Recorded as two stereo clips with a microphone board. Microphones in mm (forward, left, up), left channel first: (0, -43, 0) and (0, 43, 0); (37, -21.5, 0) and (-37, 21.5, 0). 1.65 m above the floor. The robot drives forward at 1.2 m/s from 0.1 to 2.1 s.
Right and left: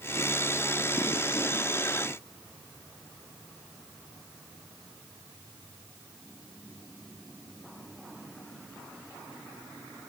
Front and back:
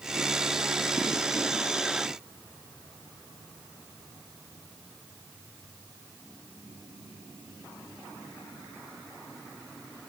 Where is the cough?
No cough in this recording.